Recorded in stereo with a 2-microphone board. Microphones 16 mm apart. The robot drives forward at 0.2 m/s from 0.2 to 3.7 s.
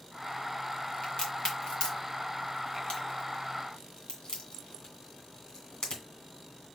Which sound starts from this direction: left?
A crack, at 1.0 s.